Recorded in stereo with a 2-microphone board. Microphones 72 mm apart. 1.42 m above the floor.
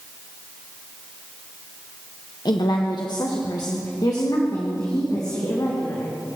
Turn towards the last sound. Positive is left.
turn(degrees=50)  # may be behind; listen again after turning